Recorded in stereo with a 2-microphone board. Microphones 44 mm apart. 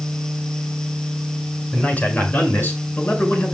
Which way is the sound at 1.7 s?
40° left (ahead or behind).